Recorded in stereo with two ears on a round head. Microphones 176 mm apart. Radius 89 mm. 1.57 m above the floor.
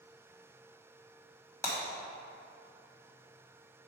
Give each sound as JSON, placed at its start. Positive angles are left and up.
{"t": 1.6, "sound": "breaking glass", "side_deg": 15, "distance_m": 1.5}